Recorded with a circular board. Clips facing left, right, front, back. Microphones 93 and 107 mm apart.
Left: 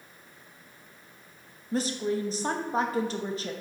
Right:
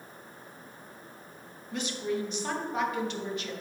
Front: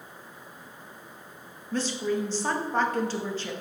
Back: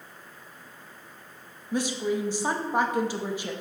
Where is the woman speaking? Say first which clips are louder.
Left 4 dB, back 1 dB; 110° left, 0.9 m.